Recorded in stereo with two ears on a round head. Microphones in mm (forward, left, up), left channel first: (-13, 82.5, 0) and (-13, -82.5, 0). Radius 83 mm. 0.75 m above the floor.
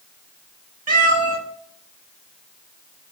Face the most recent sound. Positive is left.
turn(degrees=-45)  # may be behind; listen again after turning